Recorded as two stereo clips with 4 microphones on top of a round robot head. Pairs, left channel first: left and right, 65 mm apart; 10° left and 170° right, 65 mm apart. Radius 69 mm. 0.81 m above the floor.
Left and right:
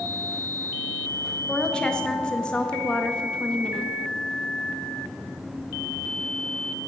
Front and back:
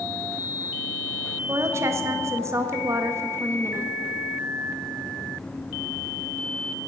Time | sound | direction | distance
1.5 | a woman speaking | 165° left | 1.2 m